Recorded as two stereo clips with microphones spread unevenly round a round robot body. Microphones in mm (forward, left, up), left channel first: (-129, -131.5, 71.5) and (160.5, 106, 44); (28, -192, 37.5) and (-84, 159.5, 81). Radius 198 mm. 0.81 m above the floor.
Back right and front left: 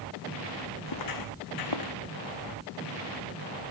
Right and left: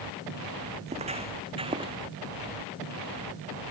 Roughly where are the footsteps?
Behind.